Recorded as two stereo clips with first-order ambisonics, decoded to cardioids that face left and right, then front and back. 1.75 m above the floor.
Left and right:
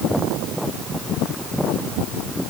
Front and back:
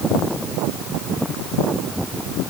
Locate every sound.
Only background noise.